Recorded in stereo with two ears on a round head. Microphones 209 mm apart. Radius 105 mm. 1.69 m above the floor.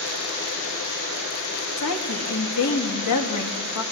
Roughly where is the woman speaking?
Left.